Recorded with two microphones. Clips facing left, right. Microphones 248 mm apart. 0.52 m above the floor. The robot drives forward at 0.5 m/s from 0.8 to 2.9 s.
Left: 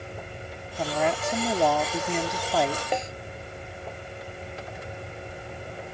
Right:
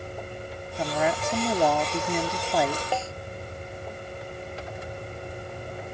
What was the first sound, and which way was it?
A woman speaking, centre (ahead or behind).